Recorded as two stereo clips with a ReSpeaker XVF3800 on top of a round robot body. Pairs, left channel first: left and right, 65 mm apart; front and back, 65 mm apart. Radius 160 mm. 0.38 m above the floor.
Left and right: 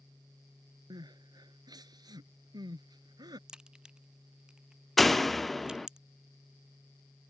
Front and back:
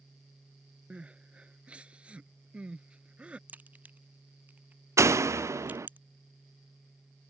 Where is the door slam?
175° left.